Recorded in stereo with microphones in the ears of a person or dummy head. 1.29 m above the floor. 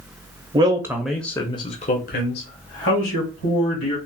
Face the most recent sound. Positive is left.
turn(degrees=75)  # may be behind; listen again after turning